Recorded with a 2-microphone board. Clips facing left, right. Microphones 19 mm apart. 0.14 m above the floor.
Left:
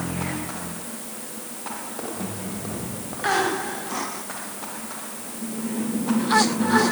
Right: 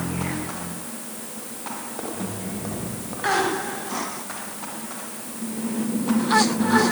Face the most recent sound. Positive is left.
No sound to turn to.